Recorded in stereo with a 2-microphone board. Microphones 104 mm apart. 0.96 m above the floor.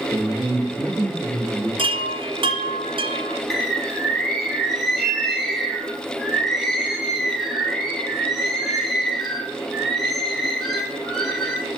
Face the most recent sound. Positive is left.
turn(degrees=0)  # may be behind; listen again after turning